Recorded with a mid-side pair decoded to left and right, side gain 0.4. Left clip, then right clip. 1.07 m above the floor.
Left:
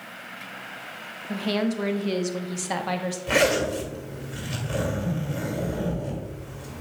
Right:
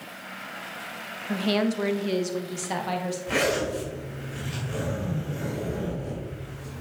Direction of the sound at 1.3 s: 30° right.